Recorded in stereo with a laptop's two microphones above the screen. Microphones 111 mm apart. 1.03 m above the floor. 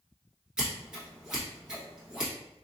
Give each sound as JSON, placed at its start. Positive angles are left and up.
{"t": 0.6, "sound": "scissors", "side_deg": -10, "distance_m": 1.2}